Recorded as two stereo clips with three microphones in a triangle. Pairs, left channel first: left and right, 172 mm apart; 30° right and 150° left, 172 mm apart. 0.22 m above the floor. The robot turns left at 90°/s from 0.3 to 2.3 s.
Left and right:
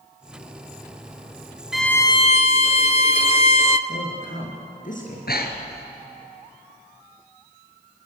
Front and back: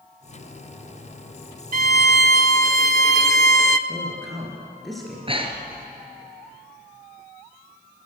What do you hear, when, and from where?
1.7 s a violin: 175° right, 0.8 m; by 3.8 s 130° left, 0.8 m
3.9 s a woman speaking: 60° left, 4 m
5.3 s breathing: 95° left, 2 m